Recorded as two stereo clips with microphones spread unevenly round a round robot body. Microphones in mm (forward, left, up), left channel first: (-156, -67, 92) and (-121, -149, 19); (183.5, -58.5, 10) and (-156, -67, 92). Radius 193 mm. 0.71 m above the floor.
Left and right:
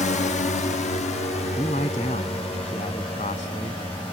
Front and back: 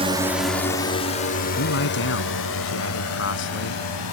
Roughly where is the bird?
No bird in this recording.